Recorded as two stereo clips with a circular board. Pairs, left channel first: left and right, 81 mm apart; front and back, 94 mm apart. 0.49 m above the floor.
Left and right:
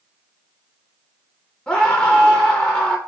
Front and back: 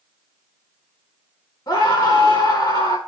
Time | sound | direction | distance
1.7 | a scream | 15° left | 1.3 m